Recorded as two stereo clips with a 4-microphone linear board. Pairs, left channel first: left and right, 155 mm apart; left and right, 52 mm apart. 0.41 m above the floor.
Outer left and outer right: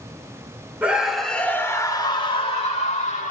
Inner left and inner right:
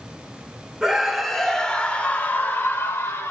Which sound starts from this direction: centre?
A scream, at 0.8 s.